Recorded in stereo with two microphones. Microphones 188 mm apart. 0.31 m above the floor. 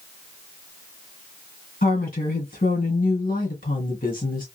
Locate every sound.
1.8 s a woman speaking: 50° left (ahead or behind), 2.0 m